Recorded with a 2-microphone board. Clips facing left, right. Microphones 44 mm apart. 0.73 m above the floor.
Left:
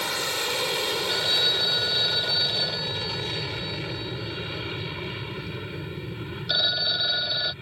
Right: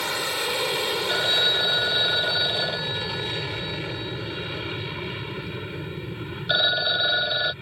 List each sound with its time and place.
0.0 s an aircraft: 5° right (ahead or behind)
1.1 s a phone ringing: 25° right (ahead or behind)